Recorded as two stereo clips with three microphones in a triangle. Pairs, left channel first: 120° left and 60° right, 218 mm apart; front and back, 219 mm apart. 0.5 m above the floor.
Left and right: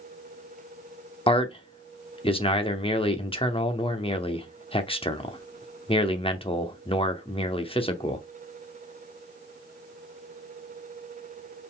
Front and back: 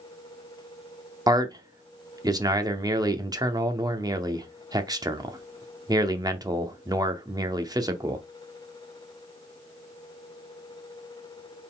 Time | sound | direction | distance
1.3 | a man speaking | 135° left | 0.7 m